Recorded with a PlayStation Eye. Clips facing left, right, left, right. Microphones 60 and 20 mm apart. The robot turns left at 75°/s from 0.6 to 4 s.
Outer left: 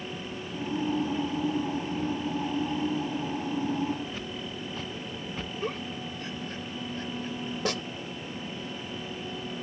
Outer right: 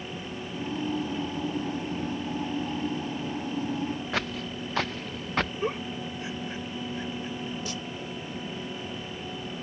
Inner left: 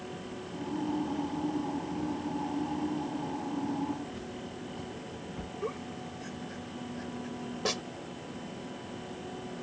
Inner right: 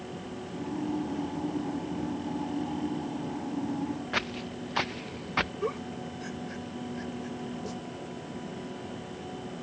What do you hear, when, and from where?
4.1 s footsteps: 80° right; by 5.5 s 75° right (ahead or behind)
5.6 s a giggle: 15° right (ahead or behind)
7.7 s a snare drum: 75° left (ahead or behind)